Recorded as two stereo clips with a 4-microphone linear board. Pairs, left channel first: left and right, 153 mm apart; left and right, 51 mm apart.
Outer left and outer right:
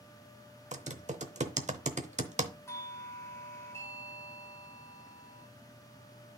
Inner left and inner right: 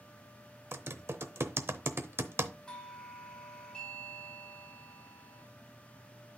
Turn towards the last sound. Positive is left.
turn(degrees=20)  # may be behind; listen again after turning